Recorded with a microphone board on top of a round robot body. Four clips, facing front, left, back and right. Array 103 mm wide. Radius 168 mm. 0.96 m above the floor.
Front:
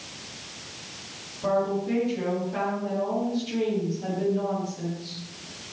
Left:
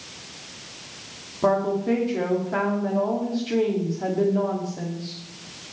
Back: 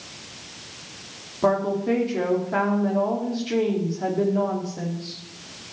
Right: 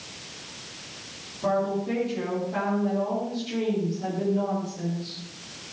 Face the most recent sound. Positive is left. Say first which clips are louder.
# left 4 dB, back 3 dB
turn(degrees=140)